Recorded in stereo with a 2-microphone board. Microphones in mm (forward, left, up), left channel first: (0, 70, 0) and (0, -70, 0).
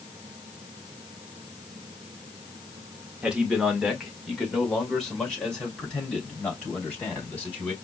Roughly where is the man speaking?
Centre.